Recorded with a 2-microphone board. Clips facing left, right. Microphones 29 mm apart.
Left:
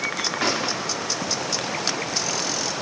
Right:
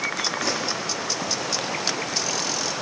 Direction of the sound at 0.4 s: 50° left (ahead or behind).